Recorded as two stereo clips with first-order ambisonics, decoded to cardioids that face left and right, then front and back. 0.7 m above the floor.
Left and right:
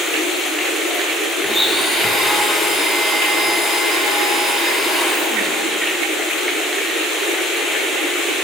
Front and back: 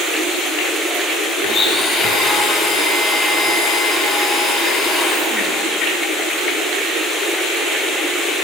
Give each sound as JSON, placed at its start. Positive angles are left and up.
{"t": 1.4, "sound": "a blender", "azimuth_deg": -5, "distance_m": 0.5}